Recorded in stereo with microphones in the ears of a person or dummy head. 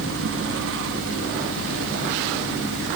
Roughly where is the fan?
Right.